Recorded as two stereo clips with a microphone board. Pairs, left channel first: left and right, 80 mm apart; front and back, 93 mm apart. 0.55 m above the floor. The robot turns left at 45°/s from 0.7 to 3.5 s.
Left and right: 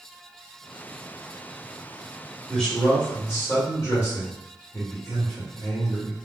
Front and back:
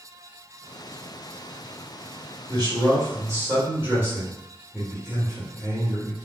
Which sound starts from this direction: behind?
A man speaking, at 2.5 s.